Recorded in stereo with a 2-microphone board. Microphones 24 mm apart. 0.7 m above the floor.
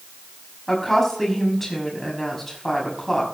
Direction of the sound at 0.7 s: 10° left (ahead or behind).